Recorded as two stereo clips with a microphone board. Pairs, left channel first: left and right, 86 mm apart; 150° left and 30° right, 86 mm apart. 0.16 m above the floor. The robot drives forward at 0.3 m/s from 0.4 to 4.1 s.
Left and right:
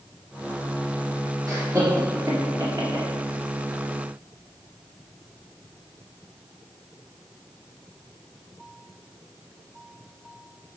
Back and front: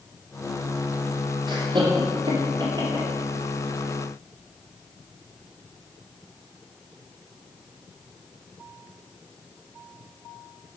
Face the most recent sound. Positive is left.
turn(degrees=-60)